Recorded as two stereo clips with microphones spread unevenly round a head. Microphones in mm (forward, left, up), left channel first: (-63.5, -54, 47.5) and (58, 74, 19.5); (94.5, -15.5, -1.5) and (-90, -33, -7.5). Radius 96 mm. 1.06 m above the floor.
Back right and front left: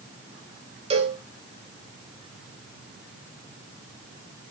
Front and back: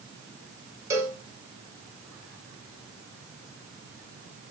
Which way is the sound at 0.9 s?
110° left.